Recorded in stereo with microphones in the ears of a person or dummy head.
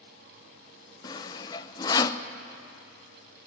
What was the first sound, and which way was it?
Sawing, 25° left (ahead or behind).